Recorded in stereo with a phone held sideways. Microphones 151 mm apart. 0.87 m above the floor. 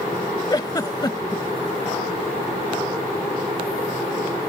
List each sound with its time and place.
0.5 s a giggle: 25° left (ahead or behind)